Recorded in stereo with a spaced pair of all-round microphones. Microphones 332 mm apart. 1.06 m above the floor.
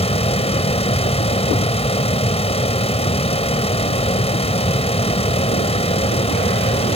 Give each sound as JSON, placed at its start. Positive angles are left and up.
{"t": 0.0, "sound": "a fan", "side_deg": 20}